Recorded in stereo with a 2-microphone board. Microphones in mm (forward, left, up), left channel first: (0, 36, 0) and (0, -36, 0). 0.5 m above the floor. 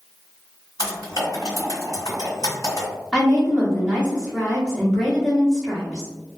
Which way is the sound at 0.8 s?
55° left (ahead or behind).